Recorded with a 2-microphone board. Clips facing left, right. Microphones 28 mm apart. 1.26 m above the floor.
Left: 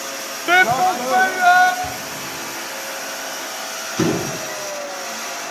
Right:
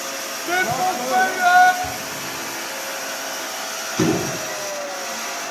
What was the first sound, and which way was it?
A shout, 40° left (ahead or behind).